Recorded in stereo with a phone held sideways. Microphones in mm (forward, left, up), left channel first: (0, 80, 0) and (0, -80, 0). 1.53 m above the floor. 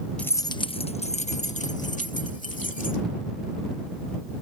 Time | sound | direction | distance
0.2 | keys jangling | 5° left (ahead or behind) | ?